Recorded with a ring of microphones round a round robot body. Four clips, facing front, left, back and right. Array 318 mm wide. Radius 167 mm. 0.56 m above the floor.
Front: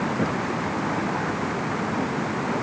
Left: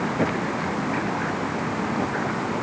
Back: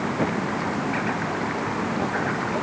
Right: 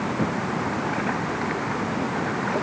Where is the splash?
I don't hear a splash.